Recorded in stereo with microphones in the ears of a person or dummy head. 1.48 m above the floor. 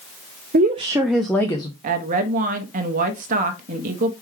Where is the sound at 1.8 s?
45° right (ahead or behind), 0.8 m.